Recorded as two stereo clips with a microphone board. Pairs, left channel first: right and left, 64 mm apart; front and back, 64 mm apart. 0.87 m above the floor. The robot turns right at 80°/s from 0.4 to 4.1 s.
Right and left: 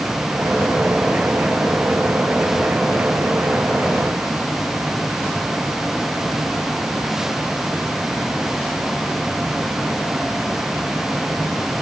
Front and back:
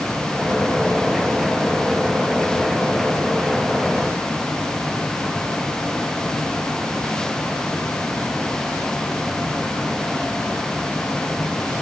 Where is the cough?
No cough in this recording.